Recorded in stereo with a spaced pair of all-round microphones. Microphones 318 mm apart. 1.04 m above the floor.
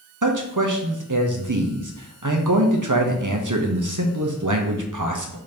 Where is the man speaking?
70° right (ahead or behind), 0.8 m.